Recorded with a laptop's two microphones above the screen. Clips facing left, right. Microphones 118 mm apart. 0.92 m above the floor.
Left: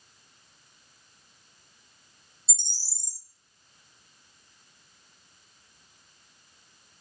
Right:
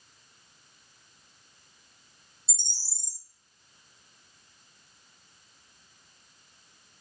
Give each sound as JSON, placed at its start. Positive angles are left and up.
{"t": 2.5, "sound": "a bird", "side_deg": -55, "distance_m": 1.3}